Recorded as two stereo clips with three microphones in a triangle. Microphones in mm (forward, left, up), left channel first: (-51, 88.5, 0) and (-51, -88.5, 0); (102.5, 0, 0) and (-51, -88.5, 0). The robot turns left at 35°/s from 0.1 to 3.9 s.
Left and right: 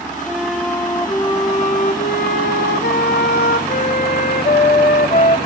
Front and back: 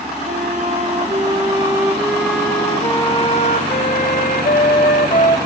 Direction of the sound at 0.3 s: 175° right.